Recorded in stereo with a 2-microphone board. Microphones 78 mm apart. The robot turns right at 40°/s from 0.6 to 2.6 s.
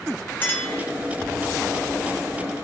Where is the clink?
30° left (ahead or behind), 2 m; by 0.8 s 40° left (ahead or behind), 2 m.